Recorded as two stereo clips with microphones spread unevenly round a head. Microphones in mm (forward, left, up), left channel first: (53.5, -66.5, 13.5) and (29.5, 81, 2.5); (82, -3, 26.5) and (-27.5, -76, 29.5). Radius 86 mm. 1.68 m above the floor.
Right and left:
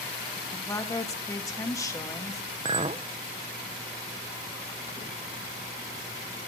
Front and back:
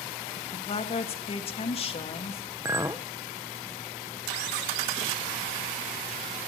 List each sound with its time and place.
0.4 s a woman speaking: 15° right, 2 m
2.6 s a clink: 145° left, 0.7 m